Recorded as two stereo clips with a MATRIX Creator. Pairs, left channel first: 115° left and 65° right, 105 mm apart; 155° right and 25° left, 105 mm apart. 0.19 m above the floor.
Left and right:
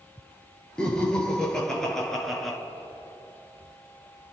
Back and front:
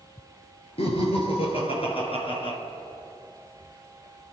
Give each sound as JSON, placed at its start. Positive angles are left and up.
{"t": 0.8, "sound": "laughter", "azimuth_deg": -165, "distance_m": 4.0}